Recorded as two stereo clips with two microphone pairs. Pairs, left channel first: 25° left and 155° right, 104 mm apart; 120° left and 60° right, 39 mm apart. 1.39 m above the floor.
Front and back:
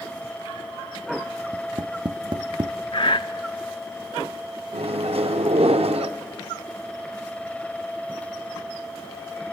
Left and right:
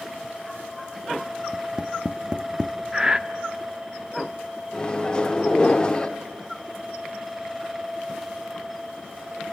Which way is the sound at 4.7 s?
175° right.